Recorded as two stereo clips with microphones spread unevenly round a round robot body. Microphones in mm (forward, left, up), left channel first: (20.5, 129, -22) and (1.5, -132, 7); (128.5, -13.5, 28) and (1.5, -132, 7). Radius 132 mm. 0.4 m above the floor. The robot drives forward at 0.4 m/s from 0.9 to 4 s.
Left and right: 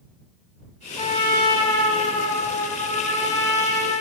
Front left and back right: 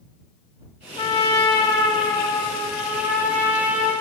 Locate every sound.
1.0 s a trumpet: 55° left, 1.3 m; by 3.9 s 150° left, 1.5 m